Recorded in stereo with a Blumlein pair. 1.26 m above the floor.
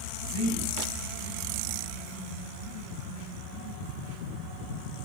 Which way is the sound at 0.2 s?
60° left.